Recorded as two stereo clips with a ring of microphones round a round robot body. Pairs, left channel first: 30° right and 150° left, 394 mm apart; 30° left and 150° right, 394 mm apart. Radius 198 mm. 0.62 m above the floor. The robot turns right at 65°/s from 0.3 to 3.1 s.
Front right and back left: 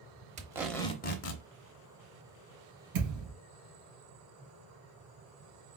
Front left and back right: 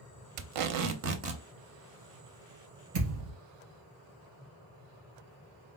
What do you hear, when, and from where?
0.4 s tape being pulled: 140° right, 0.7 m; by 1.4 s 70° right, 0.7 m
2.9 s a thud: 170° right, 3 m; by 3.3 s 160° right, 3 m